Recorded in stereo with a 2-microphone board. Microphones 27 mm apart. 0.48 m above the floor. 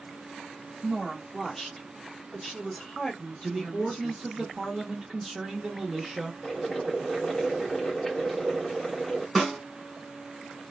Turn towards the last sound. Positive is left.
turn(degrees=5)  # may be behind; listen again after turning